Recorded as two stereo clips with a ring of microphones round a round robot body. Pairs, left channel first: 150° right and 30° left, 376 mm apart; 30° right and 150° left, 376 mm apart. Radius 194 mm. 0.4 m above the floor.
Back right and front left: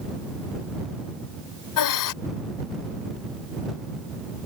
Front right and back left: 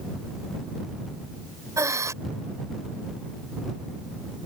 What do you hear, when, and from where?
1.8 s breathing: 130° right